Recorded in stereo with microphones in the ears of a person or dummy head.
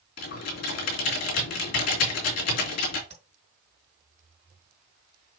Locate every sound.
0.2 s typing on a keyboard: 70° left (ahead or behind), 2.5 m
3.1 s tapping: 35° right (ahead or behind), 4 m